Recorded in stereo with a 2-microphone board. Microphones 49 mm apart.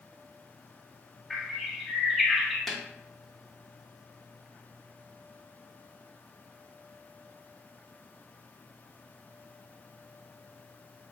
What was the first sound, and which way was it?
A bird, centre (ahead or behind).